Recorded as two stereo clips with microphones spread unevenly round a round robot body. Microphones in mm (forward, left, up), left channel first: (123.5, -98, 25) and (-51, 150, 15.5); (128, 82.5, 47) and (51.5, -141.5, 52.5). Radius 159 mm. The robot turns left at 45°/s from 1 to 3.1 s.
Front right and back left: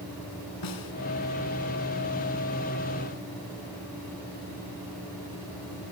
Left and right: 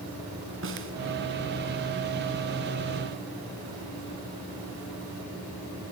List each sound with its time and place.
0.6 s a snare drum: 80° right, 5.5 m